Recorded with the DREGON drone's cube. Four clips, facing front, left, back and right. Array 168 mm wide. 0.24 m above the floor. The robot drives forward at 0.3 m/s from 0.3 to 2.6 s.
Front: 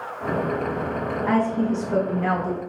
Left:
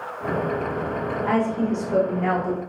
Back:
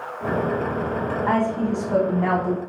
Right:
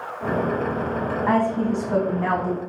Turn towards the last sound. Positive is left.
turn(degrees=-140)